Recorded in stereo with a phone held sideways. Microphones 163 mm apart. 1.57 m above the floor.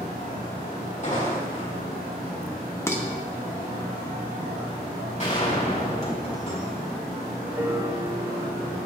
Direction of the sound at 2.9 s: 15° left (ahead or behind).